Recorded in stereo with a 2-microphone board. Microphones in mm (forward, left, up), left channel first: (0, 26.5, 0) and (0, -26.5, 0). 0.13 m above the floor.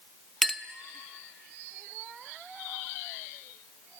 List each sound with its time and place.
0.4 s a clink: 5° left (ahead or behind), 0.6 m